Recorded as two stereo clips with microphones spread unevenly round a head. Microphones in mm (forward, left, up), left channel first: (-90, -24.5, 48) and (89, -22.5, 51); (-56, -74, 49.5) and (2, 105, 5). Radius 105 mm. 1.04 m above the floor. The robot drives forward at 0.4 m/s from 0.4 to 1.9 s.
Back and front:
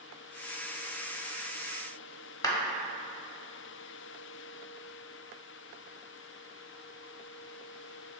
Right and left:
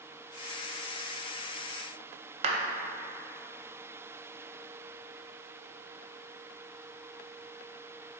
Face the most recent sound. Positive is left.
turn(degrees=110)